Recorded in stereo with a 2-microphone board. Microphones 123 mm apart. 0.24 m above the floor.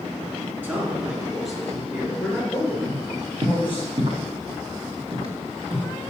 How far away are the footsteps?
About 1.5 m.